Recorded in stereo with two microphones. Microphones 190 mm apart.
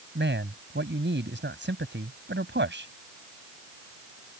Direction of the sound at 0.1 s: 75° right (ahead or behind).